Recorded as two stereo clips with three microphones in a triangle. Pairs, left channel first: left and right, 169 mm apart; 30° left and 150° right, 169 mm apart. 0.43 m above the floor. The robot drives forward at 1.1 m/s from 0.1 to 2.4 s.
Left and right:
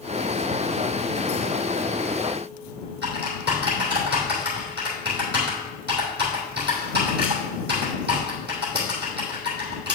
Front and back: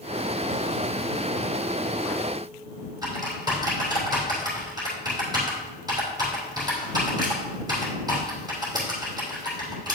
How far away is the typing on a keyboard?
About 2.5 m.